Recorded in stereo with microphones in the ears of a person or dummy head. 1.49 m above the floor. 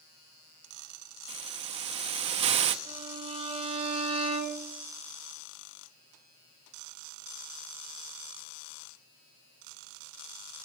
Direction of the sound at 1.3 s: 30° right (ahead or behind).